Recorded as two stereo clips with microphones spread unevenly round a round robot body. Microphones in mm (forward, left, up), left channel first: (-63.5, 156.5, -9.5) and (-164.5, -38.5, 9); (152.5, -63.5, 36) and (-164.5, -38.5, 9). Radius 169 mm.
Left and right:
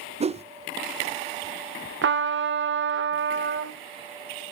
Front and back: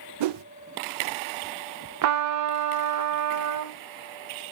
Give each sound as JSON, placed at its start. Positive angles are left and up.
{"t": 0.2, "sound": "a whoosh", "azimuth_deg": 180, "distance_m": 0.6}
{"t": 2.0, "sound": "a trumpet", "azimuth_deg": -150, "distance_m": 0.8}